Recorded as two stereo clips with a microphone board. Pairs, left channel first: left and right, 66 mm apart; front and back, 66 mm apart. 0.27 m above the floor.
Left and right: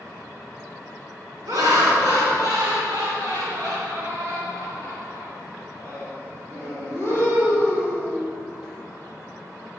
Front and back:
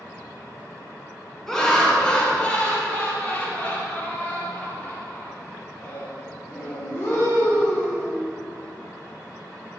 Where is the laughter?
85° right, 3 m; by 8.2 s 60° right, 8 m.